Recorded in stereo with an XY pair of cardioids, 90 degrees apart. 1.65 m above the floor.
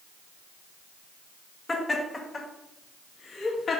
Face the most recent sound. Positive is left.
turn(degrees=55)